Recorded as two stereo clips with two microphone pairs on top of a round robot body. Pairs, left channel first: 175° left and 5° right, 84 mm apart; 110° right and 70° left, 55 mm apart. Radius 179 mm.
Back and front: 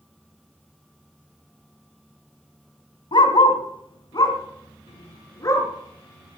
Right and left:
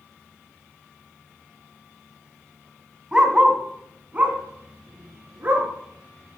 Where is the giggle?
I don't hear a giggle.